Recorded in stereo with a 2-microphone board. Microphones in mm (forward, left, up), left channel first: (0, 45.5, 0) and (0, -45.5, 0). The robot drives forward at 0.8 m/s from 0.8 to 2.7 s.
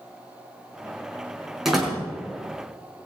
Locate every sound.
1.6 s a door slam: 5° right (ahead or behind), 4.5 m